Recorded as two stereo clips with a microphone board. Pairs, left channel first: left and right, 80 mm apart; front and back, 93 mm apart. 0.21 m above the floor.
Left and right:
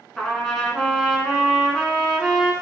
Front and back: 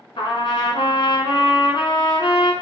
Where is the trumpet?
5° left, 0.8 m.